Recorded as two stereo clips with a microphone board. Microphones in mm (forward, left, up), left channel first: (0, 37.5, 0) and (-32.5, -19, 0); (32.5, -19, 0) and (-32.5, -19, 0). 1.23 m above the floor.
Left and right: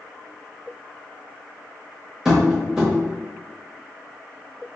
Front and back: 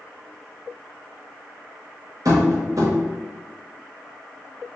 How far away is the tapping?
About 0.9 m.